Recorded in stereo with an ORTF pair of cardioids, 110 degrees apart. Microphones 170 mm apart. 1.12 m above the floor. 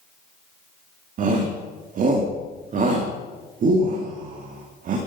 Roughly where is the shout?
Ahead right.